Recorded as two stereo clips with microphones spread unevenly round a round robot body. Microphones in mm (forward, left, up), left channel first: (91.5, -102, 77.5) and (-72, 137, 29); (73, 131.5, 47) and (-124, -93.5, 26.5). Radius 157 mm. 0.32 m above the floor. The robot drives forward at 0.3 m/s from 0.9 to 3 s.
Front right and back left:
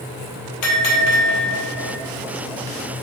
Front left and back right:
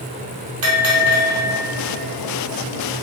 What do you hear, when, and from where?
0.6 s a bell: 85° right, 1.6 m; by 2.0 s 95° right, 1.6 m